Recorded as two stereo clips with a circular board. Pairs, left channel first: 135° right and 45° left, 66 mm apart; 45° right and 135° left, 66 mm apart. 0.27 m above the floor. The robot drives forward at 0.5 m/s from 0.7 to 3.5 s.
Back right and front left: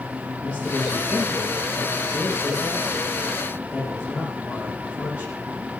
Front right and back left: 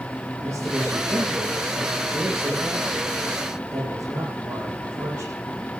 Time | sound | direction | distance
0.4 | a man speaking | 160° left | 7.5 m